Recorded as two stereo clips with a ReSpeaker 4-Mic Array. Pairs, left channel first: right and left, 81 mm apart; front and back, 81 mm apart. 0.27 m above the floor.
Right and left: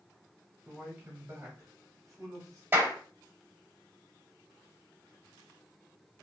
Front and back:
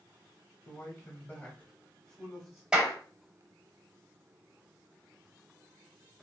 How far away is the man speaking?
About 1.3 m.